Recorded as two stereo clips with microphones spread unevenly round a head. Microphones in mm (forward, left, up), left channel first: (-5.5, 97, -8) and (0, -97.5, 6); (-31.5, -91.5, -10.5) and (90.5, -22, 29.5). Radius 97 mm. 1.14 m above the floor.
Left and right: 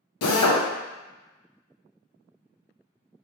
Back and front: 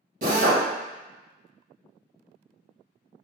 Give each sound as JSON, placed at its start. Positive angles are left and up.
{"t": 0.2, "sound": "a drill", "azimuth_deg": 80, "distance_m": 0.5}